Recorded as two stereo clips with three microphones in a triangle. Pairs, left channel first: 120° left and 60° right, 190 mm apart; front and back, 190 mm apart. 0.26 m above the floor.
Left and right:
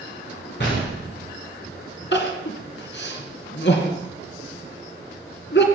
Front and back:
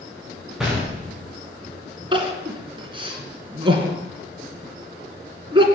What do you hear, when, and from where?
0.6 s a gunshot: 95° left, 6 m
2.1 s crying: 120° left, 2.5 m